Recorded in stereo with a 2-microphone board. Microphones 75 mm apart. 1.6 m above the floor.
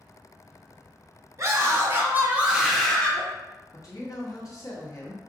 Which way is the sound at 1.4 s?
40° right (ahead or behind).